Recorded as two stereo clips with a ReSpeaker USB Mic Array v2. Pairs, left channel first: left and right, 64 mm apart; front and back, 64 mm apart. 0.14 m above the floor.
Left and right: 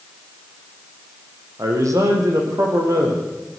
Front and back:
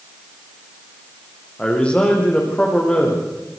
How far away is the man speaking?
About 8 m.